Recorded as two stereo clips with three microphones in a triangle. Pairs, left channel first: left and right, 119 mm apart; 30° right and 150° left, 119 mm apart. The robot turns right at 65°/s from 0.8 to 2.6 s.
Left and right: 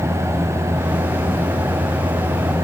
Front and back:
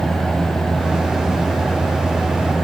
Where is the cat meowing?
I don't hear a cat meowing.